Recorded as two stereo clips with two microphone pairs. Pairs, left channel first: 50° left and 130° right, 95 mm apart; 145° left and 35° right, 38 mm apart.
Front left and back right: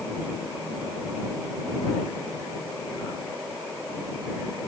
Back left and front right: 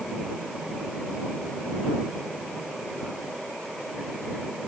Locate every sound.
Only background noise.